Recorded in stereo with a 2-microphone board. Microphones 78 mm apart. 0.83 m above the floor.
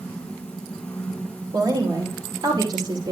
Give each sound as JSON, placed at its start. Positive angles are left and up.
{"t": 1.5, "sound": "a woman speaking", "side_deg": -75, "distance_m": 2.5}